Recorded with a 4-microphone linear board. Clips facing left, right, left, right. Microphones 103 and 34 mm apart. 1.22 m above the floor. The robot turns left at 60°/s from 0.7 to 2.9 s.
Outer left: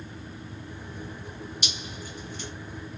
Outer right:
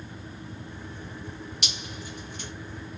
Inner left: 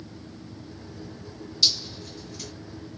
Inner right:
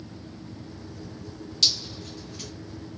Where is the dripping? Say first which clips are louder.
Even, inner left 1 dB; 70° right (ahead or behind), 1.5 m; by 2.5 s 45° right (ahead or behind), 1.5 m.